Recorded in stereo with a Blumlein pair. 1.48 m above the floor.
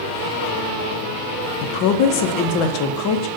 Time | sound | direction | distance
1.6 | a woman speaking | 40° left | 0.8 m